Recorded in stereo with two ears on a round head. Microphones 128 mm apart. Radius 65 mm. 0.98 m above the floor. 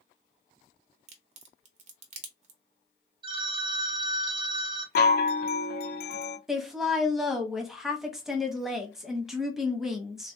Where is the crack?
45° right (ahead or behind), 0.8 m.